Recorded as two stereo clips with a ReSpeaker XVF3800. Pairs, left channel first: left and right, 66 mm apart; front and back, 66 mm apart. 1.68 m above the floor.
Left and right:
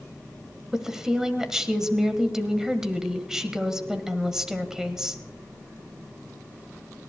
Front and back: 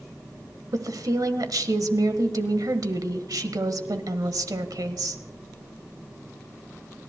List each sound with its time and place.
0.7 s a woman speaking: 170° right, 1.3 m